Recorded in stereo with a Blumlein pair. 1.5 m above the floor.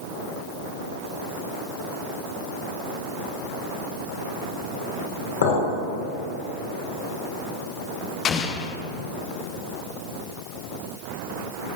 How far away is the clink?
About 3.5 m.